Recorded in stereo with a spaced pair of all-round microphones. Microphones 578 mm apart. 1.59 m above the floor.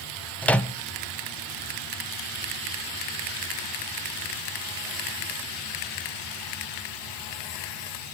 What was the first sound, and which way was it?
A microwave, centre (ahead or behind).